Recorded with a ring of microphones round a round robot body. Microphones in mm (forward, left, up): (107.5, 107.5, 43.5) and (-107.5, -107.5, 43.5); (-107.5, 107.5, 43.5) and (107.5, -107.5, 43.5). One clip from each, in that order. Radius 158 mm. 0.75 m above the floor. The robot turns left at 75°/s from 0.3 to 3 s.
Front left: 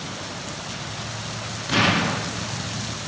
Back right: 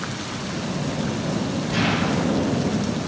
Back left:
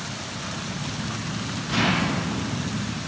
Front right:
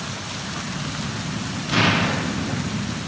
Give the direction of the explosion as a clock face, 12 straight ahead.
11 o'clock.